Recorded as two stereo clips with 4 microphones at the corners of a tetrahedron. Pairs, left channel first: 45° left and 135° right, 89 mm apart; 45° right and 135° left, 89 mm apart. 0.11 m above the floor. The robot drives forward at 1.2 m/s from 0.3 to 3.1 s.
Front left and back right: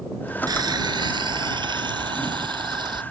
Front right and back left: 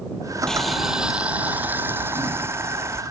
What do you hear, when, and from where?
0.5 s boiling: 125° right; by 3.0 s 165° right